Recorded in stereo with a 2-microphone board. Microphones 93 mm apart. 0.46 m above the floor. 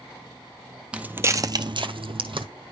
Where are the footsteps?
10° right (ahead or behind), 0.9 m; by 2.5 s 65° right (ahead or behind), 1.2 m.